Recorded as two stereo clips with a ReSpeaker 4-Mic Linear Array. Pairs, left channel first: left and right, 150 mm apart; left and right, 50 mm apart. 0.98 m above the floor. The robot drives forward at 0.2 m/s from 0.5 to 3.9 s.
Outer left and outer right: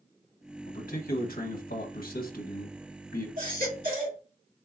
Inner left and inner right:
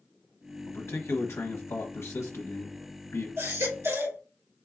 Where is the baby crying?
75° right (ahead or behind), 1.9 m; by 4.2 s 70° right (ahead or behind), 1.9 m.